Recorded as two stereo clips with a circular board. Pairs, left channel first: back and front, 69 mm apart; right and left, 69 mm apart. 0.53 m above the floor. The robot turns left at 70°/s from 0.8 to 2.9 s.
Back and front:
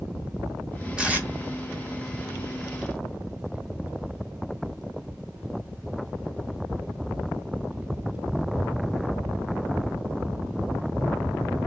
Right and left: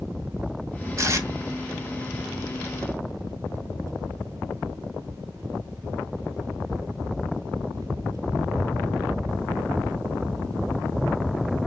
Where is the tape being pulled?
75° left, 1.2 m; by 1.3 s 50° left, 1.2 m.